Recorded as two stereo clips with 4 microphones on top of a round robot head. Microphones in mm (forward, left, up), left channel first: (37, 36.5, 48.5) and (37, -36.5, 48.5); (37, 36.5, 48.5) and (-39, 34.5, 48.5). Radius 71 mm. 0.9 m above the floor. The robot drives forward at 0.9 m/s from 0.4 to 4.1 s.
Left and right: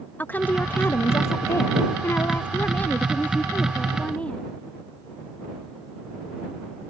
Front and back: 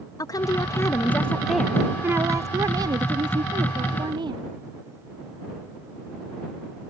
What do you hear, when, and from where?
0.2 s a woman speaking: 30° left; by 4.5 s 165° left